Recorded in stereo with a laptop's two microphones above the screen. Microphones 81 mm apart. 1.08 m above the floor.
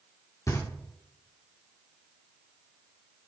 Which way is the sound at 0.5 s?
45° left (ahead or behind).